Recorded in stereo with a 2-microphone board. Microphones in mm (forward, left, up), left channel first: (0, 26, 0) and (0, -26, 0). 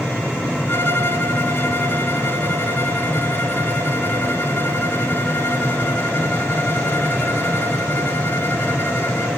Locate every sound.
0.7 s a violin: 45° left (ahead or behind), 1.4 m